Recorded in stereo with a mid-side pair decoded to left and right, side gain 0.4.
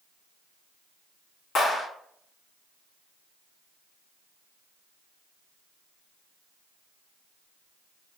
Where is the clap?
65° left, 2.0 m.